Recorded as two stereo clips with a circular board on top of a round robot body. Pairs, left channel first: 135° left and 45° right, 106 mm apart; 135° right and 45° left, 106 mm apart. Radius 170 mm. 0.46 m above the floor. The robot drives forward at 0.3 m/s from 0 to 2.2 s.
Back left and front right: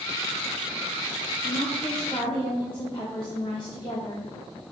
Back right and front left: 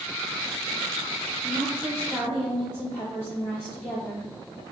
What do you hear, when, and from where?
1.4 s a woman speaking: 155° left, 1.2 m; by 4.3 s 160° left, 1.4 m